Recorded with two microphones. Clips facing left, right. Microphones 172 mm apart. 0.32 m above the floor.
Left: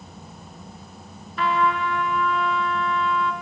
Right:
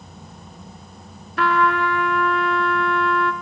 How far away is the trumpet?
About 0.8 m.